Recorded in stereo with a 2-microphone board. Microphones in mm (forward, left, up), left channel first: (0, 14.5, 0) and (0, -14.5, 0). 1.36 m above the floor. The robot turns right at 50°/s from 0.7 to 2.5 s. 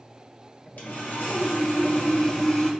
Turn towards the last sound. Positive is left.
turn(degrees=145)